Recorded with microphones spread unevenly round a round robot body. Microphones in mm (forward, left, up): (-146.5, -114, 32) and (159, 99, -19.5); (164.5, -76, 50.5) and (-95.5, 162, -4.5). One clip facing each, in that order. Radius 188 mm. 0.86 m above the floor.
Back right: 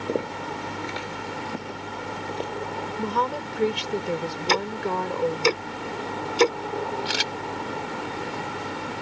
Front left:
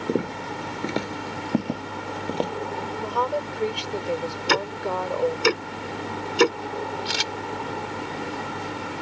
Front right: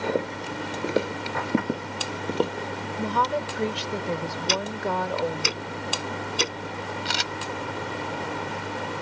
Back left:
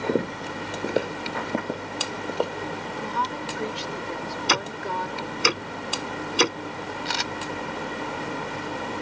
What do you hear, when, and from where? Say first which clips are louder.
0.1 s footsteps: front left 3 dB, back left 6 dB; 90° left; by 2.5 s 10° left
3.0 s a woman speaking: front left 1 dB, front right 5 dB; 80° right
4.5 s ticking: even, front right 3 dB; 105° left
7.0 s a camera shutter: back right 1 dB, back left 1 dB; 55° right